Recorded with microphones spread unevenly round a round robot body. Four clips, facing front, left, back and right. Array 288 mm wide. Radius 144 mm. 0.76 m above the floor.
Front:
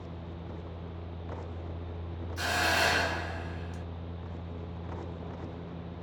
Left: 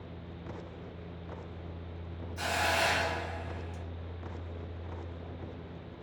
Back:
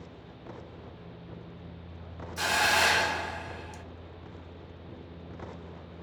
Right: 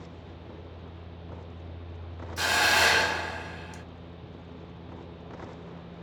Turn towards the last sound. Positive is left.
turn(degrees=-110)